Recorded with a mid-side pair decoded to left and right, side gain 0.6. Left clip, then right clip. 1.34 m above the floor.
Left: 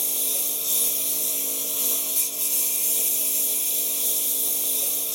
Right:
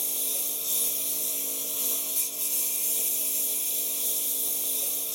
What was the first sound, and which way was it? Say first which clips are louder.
A lawn mower: left 4 dB; 25° left.